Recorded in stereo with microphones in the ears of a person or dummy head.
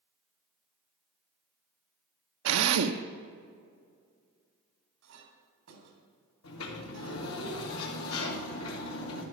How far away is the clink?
About 3.5 m.